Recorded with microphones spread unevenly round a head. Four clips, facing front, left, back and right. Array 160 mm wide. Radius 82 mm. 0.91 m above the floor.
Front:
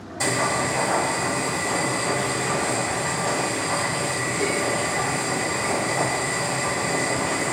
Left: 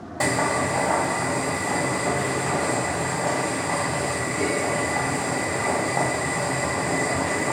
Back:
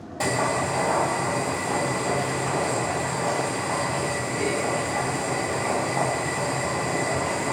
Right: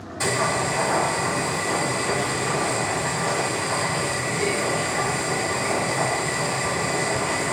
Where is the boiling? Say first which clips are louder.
Left 1 dB, even; 115° left, 1.7 m.